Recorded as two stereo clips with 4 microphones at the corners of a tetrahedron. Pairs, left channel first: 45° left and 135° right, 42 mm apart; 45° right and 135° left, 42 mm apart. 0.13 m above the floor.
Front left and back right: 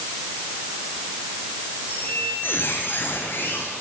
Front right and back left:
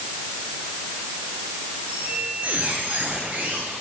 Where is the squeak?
80° left, 10 m.